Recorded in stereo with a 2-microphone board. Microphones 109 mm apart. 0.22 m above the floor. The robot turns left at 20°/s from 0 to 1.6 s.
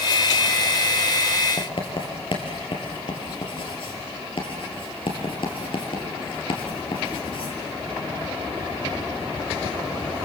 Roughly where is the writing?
Left.